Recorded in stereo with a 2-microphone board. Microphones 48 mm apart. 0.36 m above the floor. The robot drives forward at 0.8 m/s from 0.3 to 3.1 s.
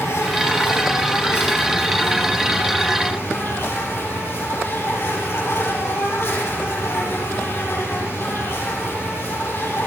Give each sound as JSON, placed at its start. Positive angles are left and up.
{"t": 0.0, "sound": "an insect", "side_deg": 80, "distance_m": 4.5}